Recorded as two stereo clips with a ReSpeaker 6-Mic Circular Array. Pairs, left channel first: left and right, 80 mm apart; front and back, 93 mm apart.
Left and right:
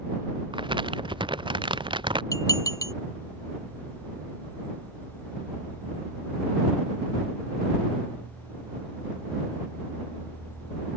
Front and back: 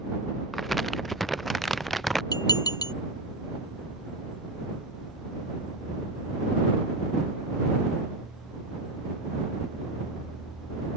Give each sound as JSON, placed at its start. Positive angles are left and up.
{"t": 0.5, "sound": "crumpling", "azimuth_deg": -90}
{"t": 2.3, "sound": "dishes clattering", "azimuth_deg": 45}